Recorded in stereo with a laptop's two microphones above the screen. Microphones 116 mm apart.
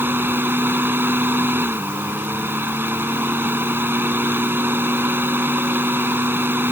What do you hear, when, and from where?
0.0 s a fan: 20° right (ahead or behind)